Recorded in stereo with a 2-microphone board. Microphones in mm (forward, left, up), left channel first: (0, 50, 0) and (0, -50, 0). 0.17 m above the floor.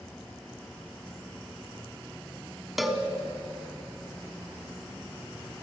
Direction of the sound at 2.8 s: Centre (ahead or behind).